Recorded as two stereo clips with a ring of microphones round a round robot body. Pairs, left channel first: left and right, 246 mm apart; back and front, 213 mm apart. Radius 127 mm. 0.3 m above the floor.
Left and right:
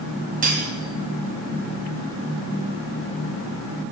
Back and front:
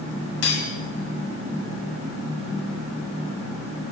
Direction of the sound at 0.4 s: 145° right.